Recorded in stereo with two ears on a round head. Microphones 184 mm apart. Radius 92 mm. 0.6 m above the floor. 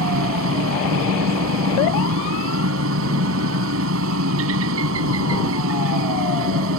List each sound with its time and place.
0.0 s a helicopter: 75° right (ahead or behind)